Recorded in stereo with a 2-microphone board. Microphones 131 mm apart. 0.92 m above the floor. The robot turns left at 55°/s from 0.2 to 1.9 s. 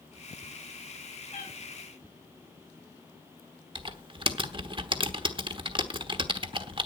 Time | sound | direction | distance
1.3 | a cat meowing | 80° left | 7 m
3.8 | typing on a keyboard | 40° right (ahead or behind) | 1.1 m